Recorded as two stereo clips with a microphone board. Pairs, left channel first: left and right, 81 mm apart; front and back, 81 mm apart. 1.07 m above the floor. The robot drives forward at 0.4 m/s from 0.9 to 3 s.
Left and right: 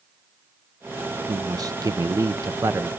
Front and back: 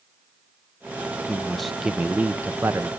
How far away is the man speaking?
About 0.8 m.